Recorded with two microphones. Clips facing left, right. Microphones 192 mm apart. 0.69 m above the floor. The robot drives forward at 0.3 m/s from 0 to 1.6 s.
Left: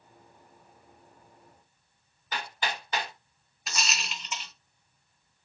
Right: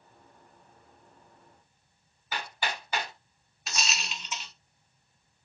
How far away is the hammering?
About 2.0 m.